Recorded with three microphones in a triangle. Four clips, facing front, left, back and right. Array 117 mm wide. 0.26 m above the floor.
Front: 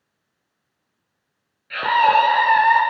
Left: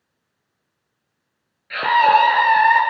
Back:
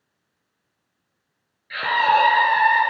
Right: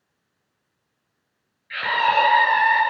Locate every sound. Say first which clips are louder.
1.7 s a scream: left 6 dB, front 3 dB; 70° left, 5 m; by 2.8 s 60° left, 5 m